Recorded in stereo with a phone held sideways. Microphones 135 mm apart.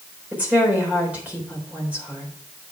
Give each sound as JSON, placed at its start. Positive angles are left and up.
{"t": 0.3, "sound": "a woman speaking", "side_deg": -10, "distance_m": 3.5}